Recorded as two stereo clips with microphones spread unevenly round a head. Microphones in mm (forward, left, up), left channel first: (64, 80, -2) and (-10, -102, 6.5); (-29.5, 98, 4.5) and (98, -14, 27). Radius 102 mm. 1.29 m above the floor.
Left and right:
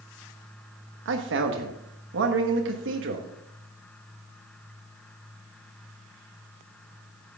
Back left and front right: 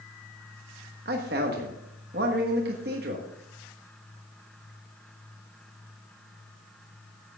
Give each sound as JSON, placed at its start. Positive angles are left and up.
{"t": 1.1, "sound": "a man speaking", "azimuth_deg": -85, "distance_m": 1.4}